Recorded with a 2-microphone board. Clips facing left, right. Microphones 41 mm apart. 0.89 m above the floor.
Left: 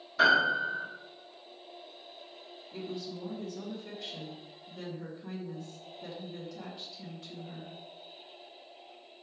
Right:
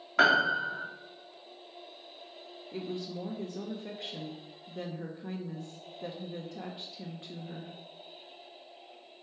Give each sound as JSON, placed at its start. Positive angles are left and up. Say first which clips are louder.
{"t": 0.2, "sound": "a piano", "louder": "even", "side_deg": -70, "distance_m": 2.0}
{"t": 2.7, "sound": "a woman speaking", "louder": "right 2 dB", "side_deg": -35, "distance_m": 0.9}